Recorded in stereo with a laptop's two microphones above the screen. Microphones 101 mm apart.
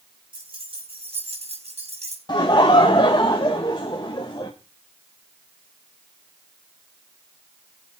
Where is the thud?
I don't hear a thud.